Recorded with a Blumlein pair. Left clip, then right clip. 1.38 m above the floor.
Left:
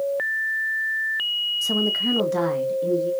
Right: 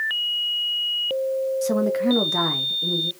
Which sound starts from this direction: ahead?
A woman speaking, at 1.6 s.